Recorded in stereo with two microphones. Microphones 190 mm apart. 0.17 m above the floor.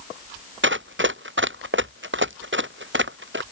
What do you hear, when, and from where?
0.6 s running footsteps: 90° right; by 3.4 s 85° right